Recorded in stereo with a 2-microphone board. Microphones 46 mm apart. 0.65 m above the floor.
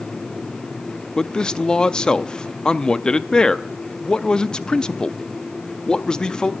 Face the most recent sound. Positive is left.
turn(degrees=20)  # may be behind; listen again after turning